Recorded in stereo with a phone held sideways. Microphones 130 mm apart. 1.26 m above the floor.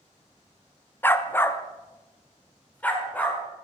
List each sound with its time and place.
1.0 s a dog barking: 15° left (ahead or behind), 0.7 m; by 3.6 s 10° left (ahead or behind), 2.5 m